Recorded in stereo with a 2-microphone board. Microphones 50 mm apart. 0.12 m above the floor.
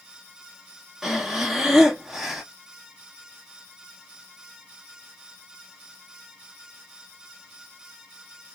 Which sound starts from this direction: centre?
Breathing, at 1.0 s.